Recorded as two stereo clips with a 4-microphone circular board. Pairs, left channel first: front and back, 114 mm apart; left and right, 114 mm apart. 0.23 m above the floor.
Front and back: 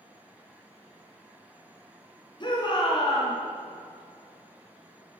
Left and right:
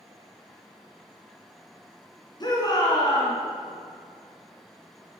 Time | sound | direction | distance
2.4 | a shout | 45° left | 3 m